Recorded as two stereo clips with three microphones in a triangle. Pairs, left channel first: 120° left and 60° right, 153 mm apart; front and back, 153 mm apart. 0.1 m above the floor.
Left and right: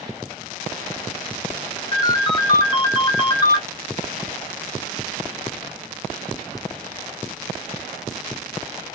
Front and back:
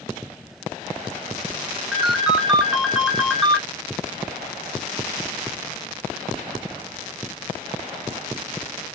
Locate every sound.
1.9 s a ringtone: 95° left, 0.7 m